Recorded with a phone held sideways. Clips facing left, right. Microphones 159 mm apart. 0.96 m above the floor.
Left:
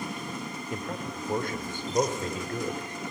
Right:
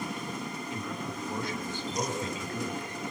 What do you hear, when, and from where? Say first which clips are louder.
0.7 s a man speaking: left 4 dB; 50° left (ahead or behind), 2.5 m